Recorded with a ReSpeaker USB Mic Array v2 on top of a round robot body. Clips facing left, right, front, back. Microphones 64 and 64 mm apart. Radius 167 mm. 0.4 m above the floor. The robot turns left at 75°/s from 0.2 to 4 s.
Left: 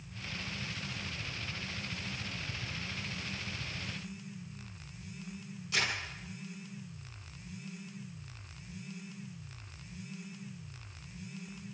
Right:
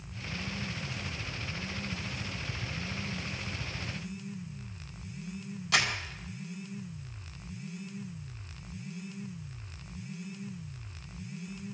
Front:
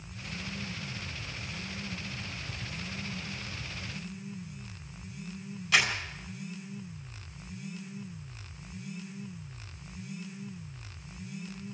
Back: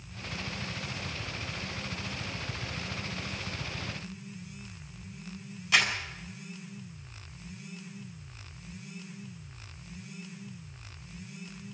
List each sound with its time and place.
5.7 s crumpling: 95° right, 4.5 m